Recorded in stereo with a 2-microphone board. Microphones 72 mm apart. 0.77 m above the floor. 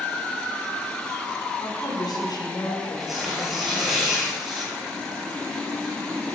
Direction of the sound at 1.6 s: 70° left (ahead or behind).